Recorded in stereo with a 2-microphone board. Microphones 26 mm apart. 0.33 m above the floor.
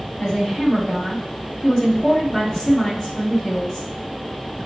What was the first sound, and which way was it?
A woman speaking, 30° left (ahead or behind).